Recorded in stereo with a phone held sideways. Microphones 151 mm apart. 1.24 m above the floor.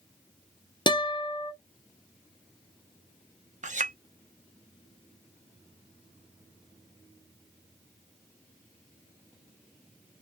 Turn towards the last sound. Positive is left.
turn(degrees=-55)  # may be behind; listen again after turning